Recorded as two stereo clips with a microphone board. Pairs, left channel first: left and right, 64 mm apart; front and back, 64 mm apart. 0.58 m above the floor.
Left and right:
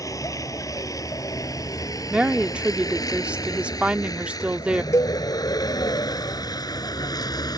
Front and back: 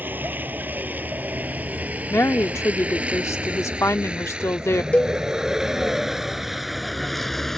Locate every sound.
0.0 s a vehicle: 120° left; by 7.6 s 85° left
2.1 s a woman speaking: 20° right
4.9 s a cowbell: 70° left